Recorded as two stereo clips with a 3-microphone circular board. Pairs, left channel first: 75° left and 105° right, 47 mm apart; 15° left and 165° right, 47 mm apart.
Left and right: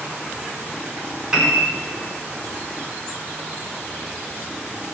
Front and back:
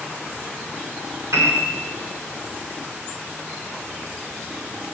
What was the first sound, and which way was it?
A piano, 175° right.